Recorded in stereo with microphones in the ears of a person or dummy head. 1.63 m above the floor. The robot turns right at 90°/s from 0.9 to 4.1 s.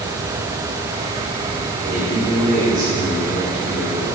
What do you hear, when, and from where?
1.9 s a man speaking: 105° right, 2.5 m; by 4.2 s 95° left, 2.5 m